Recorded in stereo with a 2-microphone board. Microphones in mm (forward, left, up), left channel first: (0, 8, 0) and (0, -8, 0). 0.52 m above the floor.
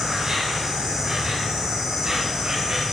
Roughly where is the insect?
Right.